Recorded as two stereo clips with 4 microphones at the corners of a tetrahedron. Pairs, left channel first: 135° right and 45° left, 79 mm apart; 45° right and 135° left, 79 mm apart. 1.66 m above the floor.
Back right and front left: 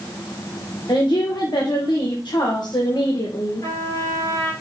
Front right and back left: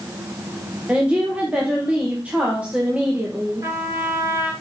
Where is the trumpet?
175° right, 4 m.